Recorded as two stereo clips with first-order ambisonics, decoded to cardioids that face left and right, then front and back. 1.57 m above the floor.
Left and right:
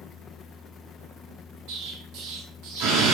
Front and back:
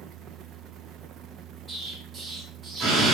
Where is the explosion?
95° right, 5 m.